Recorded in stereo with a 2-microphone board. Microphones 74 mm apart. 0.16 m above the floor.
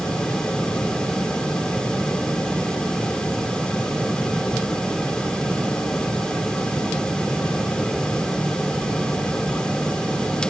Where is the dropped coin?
I don't hear a dropped coin.